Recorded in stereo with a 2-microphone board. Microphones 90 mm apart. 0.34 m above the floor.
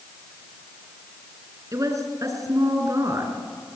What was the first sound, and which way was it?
A woman speaking, 40° right (ahead or behind).